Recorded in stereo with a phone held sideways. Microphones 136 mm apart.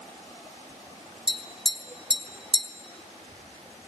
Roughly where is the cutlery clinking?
I don't hear cutlery clinking.